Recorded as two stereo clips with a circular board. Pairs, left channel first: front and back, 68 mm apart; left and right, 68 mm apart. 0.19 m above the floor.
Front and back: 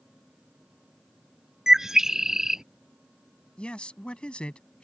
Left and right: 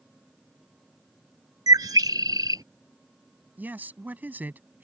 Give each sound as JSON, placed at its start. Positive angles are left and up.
{"t": 1.7, "sound": "a bird", "azimuth_deg": -100}
{"t": 3.6, "sound": "a man speaking", "azimuth_deg": -60}